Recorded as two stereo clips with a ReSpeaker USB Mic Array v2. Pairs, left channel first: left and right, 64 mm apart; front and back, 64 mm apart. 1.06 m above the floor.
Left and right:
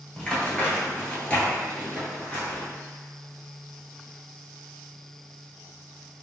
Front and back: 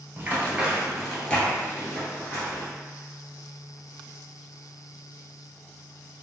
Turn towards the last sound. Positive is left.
turn(degrees=25)